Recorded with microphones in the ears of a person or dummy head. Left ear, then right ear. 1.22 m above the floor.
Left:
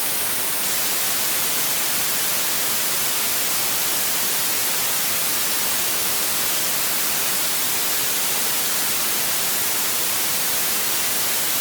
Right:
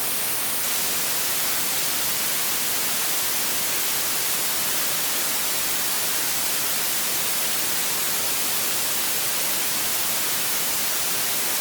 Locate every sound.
Only background noise.